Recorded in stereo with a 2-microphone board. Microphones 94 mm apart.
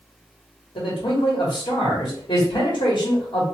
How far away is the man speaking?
About 1.3 m.